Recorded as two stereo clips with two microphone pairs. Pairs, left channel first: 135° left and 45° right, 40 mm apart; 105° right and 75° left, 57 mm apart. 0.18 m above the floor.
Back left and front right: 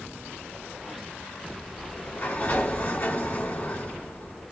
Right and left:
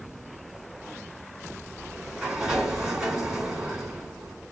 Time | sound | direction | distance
1.8 | a sliding door | 150° left | 1.4 m